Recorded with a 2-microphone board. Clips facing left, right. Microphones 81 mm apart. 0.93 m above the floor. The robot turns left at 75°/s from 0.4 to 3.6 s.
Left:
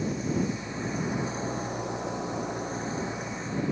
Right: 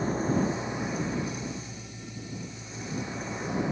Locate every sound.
0.0 s an engine running: 140° right; by 3.7 s 20° right